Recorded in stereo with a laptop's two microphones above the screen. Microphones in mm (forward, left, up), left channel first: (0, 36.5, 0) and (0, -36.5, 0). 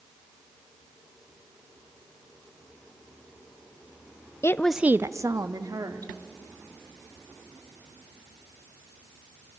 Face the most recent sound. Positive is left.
turn(degrees=-65)  # may be behind; listen again after turning